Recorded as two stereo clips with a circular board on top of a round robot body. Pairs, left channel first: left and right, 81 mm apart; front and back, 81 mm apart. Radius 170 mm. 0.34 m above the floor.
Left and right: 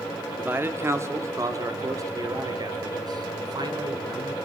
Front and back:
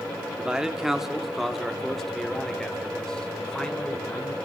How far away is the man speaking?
About 1.6 m.